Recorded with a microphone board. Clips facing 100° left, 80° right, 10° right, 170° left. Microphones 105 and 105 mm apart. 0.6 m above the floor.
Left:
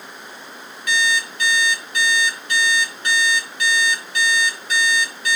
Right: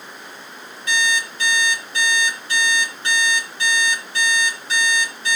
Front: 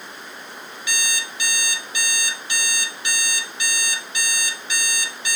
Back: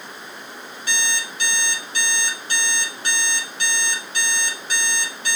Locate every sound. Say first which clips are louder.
0.9 s an alarm clock: left 1 dB, back 3 dB; 140° right, 5 m